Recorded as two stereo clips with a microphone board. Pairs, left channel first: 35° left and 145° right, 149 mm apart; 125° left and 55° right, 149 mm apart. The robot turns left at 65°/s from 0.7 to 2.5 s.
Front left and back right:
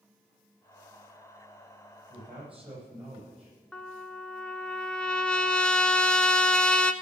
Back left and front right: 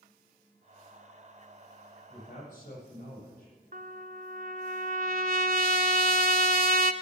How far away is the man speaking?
About 8 m.